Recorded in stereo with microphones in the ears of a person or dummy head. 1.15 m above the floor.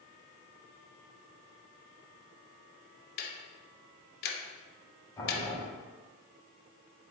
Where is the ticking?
55° left (ahead or behind), 0.8 m.